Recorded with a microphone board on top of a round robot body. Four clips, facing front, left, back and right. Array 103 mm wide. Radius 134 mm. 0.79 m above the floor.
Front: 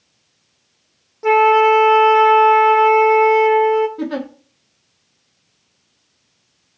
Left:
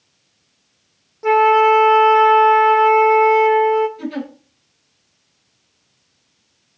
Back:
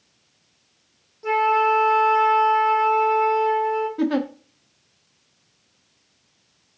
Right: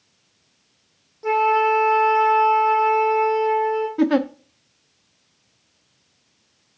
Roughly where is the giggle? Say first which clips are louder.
Right 8 dB, back 2 dB; right.